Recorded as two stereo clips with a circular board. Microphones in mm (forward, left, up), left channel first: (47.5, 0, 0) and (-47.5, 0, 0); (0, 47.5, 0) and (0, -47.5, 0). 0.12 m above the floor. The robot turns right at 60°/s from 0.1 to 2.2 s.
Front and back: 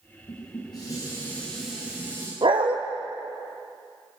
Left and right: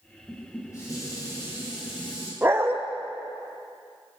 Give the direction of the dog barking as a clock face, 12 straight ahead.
5 o'clock.